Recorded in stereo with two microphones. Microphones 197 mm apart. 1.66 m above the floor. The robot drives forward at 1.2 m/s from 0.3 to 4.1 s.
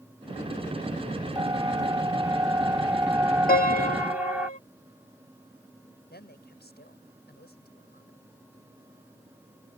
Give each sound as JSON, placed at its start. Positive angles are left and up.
{"t": 1.4, "sound": "a siren", "side_deg": -20}
{"t": 3.5, "sound": "a piano", "side_deg": 50}
{"t": 6.1, "sound": "a woman speaking", "side_deg": 60}